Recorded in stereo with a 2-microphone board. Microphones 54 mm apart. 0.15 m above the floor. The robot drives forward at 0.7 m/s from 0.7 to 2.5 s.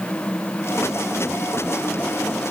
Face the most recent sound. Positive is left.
No sound to turn to.